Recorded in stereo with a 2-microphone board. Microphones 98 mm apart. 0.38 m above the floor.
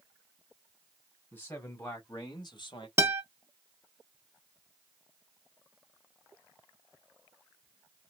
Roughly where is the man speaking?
Left.